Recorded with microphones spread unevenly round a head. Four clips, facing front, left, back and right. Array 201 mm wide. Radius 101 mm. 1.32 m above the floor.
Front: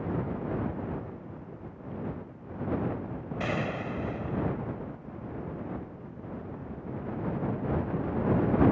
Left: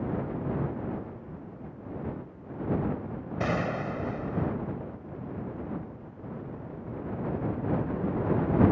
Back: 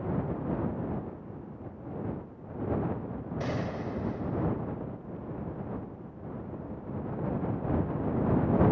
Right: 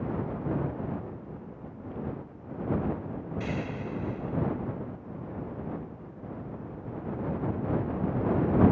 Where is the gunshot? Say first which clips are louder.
Left 7 dB, front 2 dB; 75° left.